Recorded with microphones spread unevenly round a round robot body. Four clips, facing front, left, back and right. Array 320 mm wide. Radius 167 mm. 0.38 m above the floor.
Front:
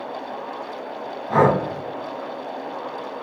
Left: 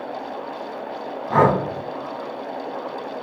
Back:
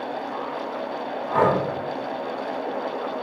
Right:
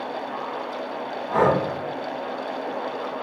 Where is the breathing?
55° left, 2.0 m.